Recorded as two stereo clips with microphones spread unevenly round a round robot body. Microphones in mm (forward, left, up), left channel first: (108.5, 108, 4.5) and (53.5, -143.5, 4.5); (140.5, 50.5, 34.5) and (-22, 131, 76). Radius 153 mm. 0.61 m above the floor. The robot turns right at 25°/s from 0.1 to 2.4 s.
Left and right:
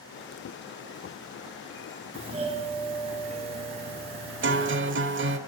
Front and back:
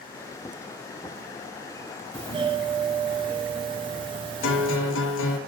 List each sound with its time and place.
2.1 s a doorbell: 150° right, 1.1 m; by 4.8 s 145° right, 1.1 m
4.4 s a guitar: 55° right, 1.1 m